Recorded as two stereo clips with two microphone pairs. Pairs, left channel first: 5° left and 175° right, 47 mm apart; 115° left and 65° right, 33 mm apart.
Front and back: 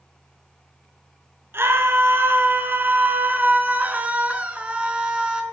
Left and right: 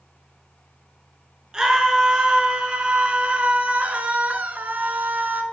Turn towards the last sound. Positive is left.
turn(degrees=-100)